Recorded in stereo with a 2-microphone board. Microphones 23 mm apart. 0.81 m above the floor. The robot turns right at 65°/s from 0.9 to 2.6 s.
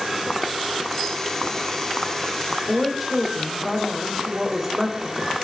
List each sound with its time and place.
2.5 s a woman speaking: 25° right (ahead or behind), 2 m; by 5.4 s 20° right (ahead or behind), 2 m